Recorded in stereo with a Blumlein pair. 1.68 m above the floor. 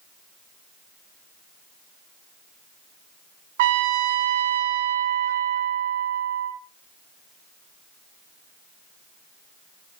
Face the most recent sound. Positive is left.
turn(degrees=-55)